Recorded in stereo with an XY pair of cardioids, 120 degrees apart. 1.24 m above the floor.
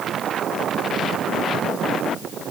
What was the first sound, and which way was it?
Only background noise.